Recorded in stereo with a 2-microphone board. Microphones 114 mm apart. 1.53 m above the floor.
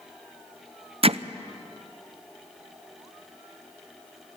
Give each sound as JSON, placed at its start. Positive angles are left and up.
{"t": 1.0, "sound": "hammering", "side_deg": -55, "distance_m": 0.5}